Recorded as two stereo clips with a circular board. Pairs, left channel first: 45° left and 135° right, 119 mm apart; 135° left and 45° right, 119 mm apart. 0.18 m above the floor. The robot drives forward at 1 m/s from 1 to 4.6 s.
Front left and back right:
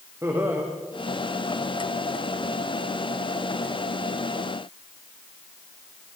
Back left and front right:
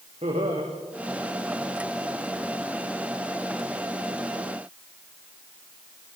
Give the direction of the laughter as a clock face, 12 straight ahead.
2 o'clock.